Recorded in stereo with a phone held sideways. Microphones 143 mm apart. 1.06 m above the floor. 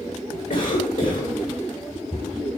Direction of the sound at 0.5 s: 85° left.